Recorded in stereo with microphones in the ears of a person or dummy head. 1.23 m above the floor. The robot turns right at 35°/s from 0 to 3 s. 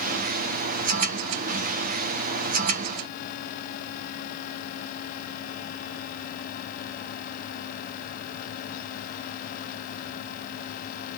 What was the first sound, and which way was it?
Only background noise.